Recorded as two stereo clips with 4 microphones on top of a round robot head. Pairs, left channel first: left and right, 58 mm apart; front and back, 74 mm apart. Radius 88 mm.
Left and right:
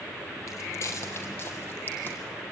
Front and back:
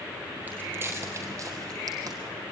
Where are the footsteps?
115° left, 2 m; by 2.2 s 145° left, 3 m.